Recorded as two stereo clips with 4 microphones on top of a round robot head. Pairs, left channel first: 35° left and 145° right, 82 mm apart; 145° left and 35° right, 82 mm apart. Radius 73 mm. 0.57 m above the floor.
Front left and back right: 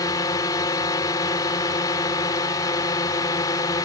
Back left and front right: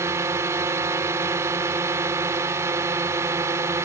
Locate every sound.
0.0 s a drone: 10° left